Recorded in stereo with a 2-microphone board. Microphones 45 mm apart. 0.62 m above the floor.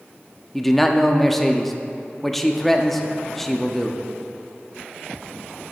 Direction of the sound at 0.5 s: 5° left (ahead or behind).